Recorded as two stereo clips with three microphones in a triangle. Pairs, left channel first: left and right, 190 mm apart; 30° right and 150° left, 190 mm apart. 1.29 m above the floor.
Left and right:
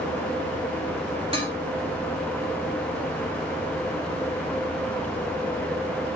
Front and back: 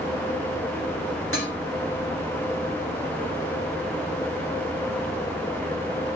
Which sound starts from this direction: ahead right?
Dishes clattering, at 1.3 s.